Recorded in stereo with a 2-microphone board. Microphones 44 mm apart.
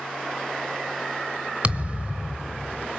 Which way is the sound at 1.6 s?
30° right (ahead or behind).